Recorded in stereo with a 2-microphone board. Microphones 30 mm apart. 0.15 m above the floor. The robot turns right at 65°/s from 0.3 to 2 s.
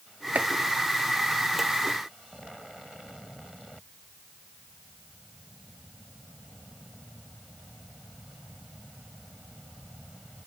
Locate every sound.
0.3 s chopping: 55° right (ahead or behind); by 0.5 s 50° right (ahead or behind)